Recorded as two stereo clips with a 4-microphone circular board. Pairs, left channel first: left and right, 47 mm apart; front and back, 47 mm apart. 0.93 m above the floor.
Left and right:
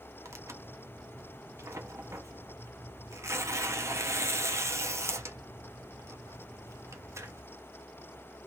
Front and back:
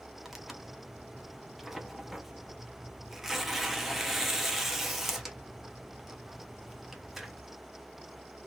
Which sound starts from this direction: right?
Tearing paper, at 0.2 s.